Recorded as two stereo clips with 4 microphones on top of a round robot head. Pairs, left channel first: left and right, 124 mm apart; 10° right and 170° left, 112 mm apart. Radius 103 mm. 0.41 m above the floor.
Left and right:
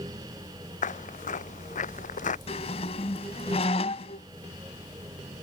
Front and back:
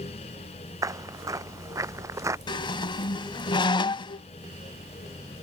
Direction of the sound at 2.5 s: 40° left.